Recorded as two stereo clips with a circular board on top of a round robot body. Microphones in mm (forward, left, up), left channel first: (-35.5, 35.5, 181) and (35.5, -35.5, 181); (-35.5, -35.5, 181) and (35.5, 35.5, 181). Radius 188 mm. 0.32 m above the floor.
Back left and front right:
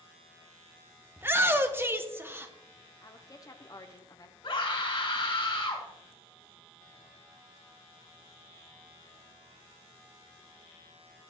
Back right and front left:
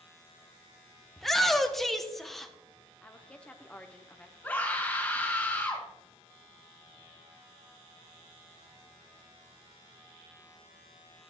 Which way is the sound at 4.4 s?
155° left.